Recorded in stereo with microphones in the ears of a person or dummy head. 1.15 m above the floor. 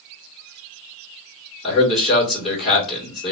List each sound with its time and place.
1.6 s a man speaking: 5° right (ahead or behind), 1.3 m